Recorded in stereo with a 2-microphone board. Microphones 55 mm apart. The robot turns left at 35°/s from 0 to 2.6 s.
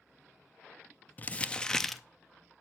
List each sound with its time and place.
1.2 s crumpling: 30° left (ahead or behind), 0.5 m; by 2.0 s centre (ahead or behind), 0.5 m